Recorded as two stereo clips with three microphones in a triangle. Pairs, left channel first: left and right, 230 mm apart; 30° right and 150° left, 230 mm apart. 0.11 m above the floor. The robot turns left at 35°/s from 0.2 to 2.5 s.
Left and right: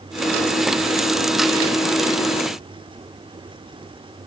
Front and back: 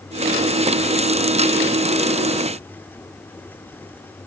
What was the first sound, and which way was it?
Only background noise.